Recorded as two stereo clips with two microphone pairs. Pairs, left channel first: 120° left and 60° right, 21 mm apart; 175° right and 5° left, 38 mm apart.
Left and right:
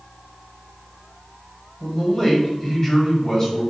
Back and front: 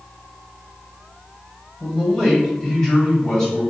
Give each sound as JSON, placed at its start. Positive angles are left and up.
{"t": 1.8, "sound": "a man speaking", "azimuth_deg": 120, "distance_m": 1.7}